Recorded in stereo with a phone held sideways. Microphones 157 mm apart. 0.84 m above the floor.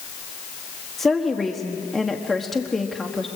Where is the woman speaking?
Centre (ahead or behind), 1.3 m.